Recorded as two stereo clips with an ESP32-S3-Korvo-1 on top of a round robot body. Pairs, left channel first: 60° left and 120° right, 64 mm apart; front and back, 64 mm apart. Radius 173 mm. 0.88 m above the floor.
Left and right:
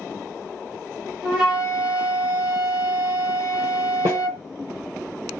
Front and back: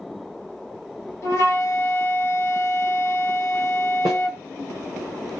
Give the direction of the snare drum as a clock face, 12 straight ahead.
5 o'clock.